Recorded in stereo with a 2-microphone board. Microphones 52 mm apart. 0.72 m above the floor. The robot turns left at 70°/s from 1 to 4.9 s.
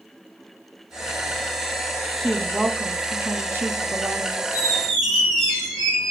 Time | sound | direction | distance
2.2 | a woman speaking | 25° left | 0.6 m
4.5 | a squeak | 20° right (ahead or behind) | 2.5 m